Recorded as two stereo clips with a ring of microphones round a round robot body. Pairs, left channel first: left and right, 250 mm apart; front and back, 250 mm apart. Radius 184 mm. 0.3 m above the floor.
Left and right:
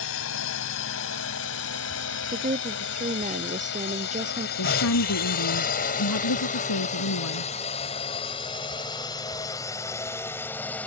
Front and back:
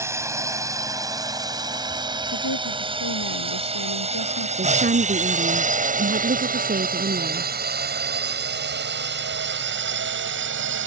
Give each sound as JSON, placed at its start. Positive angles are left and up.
{"t": 0.0, "sound": "a drone", "azimuth_deg": 105}
{"t": 2.3, "sound": "a woman speaking", "azimuth_deg": -30}
{"t": 4.6, "sound": "a woman speaking", "azimuth_deg": 125}